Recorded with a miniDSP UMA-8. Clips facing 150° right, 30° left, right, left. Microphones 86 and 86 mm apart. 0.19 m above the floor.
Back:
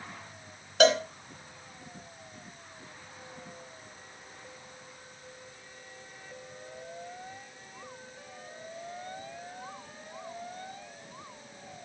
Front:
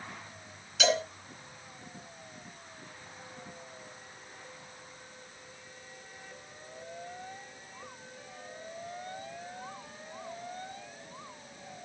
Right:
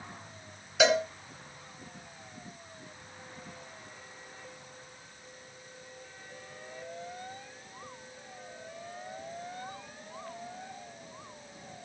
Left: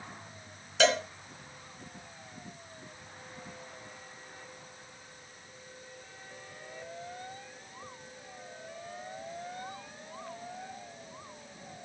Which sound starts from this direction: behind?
A cowbell, at 0.8 s.